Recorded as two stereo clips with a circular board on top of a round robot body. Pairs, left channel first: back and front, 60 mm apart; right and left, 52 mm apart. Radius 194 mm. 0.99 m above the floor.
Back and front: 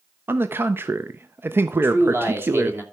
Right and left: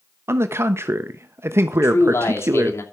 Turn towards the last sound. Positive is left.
turn(degrees=-55)